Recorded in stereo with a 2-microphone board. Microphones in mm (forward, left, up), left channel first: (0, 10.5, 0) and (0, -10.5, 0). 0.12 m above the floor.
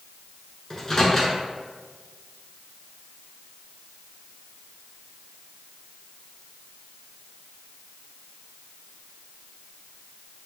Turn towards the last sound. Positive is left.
turn(degrees=15)  # may be behind; listen again after turning